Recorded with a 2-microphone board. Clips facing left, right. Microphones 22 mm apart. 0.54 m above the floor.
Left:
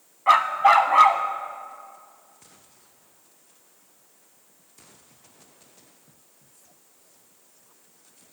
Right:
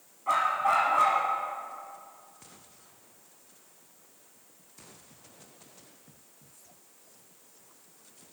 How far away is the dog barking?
About 0.8 m.